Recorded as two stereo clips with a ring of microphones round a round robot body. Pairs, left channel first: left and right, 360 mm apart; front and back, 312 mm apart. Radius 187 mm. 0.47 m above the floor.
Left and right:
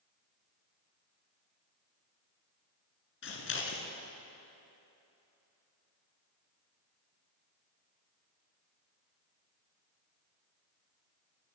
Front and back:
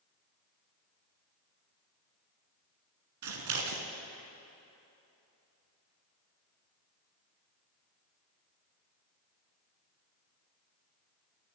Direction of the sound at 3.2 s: 150° left.